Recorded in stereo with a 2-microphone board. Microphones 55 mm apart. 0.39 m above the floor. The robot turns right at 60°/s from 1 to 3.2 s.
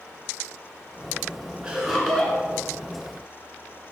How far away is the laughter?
About 2.5 m.